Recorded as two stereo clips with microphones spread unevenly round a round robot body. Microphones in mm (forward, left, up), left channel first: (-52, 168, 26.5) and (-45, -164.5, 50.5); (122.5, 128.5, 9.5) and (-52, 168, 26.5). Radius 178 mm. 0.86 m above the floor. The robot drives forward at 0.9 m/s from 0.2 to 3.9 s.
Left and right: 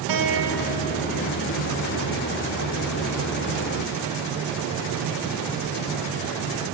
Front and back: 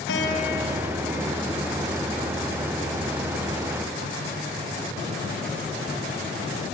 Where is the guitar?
55° right, 3 m; by 1.1 s 65° right, 2.5 m.